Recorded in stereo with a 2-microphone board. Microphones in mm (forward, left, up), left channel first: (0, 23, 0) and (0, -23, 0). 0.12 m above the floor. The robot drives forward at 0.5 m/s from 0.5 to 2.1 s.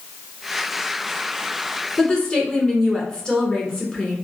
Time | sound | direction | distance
2.0 | a woman speaking | 20° left (ahead or behind) | 1.1 m